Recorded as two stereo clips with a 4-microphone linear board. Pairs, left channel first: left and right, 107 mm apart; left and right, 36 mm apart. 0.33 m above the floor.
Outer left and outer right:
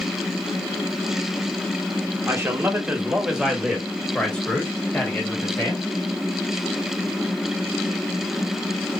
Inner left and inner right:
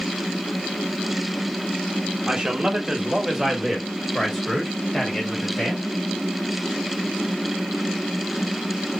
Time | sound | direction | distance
2.3 | a man speaking | 25° right (ahead or behind) | 1.2 m